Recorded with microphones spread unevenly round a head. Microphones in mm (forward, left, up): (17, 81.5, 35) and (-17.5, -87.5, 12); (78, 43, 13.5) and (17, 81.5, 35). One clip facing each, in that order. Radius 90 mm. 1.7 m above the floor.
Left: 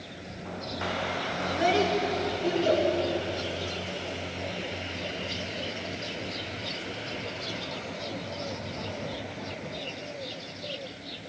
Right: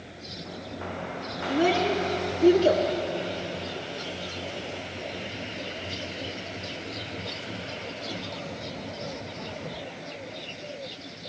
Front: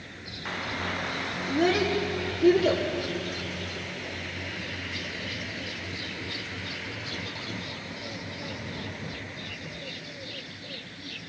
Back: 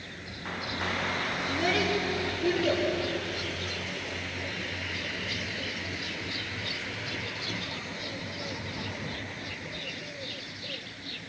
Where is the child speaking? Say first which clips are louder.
Right 2 dB, front 5 dB; 70° right, 3.5 m; by 2.8 s 80° right, 3 m.